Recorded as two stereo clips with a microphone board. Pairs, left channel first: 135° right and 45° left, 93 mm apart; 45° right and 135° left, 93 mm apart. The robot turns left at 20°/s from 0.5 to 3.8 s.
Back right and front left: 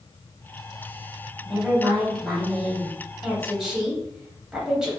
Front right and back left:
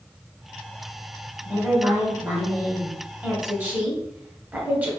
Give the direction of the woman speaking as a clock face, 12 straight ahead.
7 o'clock.